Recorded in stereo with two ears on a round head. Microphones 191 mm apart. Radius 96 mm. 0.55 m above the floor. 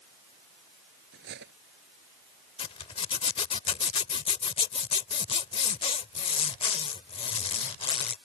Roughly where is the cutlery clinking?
Right.